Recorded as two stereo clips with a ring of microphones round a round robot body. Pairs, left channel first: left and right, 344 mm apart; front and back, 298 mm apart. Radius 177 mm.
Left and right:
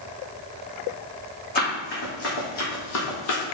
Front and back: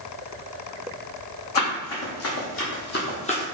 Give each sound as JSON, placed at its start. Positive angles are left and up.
{"t": 1.6, "sound": "running footsteps", "azimuth_deg": 25, "distance_m": 1.9}